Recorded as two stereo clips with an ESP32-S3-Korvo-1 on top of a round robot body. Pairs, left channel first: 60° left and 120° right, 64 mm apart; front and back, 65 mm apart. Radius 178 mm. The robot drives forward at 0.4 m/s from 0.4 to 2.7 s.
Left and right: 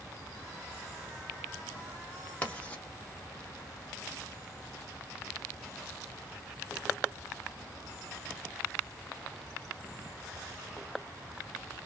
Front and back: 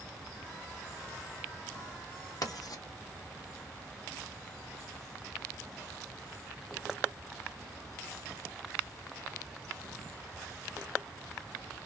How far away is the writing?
About 1.0 m.